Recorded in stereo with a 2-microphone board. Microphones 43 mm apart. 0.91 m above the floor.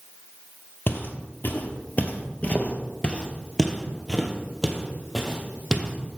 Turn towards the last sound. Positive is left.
turn(degrees=-15)  # may be behind; listen again after turning